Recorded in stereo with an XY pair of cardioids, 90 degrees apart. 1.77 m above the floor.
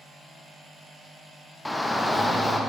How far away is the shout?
About 1.4 m.